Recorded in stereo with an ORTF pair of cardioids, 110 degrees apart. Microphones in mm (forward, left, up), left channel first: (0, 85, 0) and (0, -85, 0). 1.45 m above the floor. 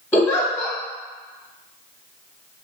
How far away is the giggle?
About 1.0 m.